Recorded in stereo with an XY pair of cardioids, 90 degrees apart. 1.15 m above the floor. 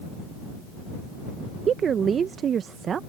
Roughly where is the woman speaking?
Ahead right.